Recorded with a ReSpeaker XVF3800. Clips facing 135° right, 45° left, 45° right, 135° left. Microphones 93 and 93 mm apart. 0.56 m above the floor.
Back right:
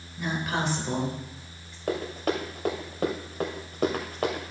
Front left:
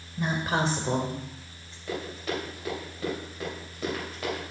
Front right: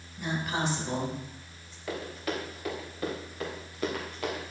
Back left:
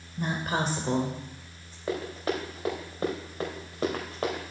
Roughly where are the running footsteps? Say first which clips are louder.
Back right 5 dB, back left 4 dB; behind.